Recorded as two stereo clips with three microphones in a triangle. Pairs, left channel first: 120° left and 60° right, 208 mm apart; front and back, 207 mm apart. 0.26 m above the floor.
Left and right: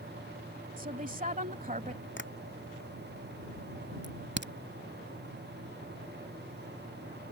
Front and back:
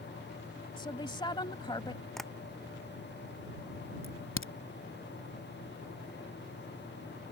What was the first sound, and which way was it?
A woman speaking, 55° right.